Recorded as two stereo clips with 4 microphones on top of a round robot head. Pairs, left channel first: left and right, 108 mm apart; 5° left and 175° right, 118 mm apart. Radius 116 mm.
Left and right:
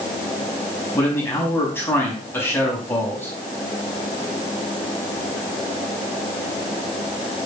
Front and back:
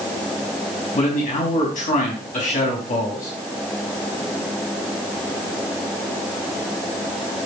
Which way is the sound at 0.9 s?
20° left.